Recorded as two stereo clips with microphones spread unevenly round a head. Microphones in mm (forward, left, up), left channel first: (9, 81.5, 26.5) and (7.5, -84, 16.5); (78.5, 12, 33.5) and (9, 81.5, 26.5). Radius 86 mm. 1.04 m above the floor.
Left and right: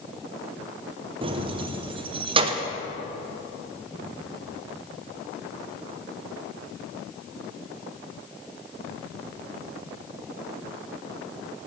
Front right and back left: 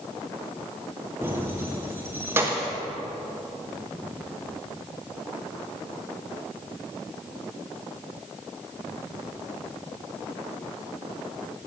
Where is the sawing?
No sawing in this recording.